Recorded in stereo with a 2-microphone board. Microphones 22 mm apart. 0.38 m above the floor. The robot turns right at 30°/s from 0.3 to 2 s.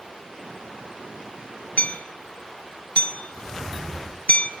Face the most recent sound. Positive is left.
turn(degrees=75)  # may be behind; listen again after turning